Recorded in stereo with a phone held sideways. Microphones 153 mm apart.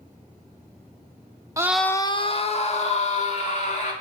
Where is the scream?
20° right (ahead or behind), 0.5 m; by 3.9 s 50° left (ahead or behind), 3 m.